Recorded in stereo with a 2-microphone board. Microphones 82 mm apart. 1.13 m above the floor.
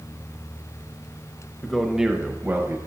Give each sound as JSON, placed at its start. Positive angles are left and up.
{"t": 1.6, "sound": "a man speaking", "side_deg": 5, "distance_m": 0.8}